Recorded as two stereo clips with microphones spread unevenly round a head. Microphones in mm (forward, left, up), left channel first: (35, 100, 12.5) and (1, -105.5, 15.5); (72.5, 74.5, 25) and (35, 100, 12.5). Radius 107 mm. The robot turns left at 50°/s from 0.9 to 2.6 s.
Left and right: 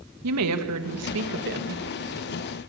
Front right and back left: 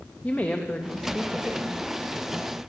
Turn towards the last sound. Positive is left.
turn(degrees=160)